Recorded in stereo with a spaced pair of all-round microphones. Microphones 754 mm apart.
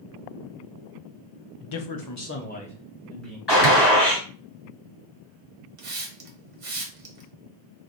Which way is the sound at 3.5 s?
30° left (ahead or behind).